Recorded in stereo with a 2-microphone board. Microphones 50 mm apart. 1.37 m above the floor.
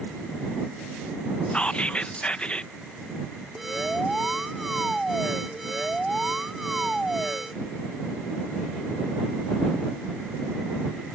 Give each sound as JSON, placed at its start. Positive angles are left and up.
{"t": 1.5, "sound": "whispering", "side_deg": 25}
{"t": 3.5, "sound": "an alarm", "side_deg": -5}